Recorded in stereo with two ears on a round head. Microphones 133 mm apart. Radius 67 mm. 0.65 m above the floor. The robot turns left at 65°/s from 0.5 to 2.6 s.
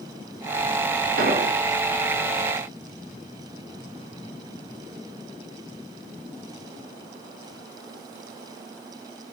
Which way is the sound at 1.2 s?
65° right (ahead or behind).